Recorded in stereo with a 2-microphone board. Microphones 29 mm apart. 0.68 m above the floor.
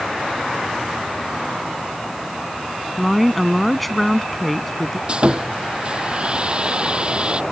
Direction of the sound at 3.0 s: Centre (ahead or behind).